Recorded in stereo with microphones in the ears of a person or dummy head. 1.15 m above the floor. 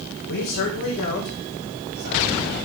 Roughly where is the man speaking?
Left.